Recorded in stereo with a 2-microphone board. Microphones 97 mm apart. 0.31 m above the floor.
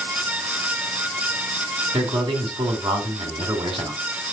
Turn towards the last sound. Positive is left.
turn(degrees=-60)  # may be behind; listen again after turning